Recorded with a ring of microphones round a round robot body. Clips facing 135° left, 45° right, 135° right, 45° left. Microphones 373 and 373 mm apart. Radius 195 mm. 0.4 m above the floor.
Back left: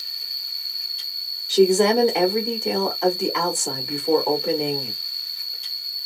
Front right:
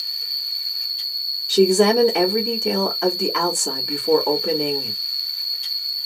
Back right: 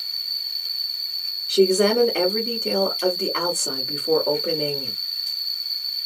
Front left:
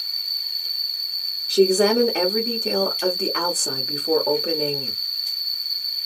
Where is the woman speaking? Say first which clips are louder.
Front right 1 dB, even; 55° right, 0.9 m.